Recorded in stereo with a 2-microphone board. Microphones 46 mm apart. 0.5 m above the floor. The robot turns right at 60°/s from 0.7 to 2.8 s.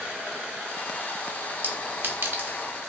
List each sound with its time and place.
1.6 s a clink: 45° right (ahead or behind), 0.5 m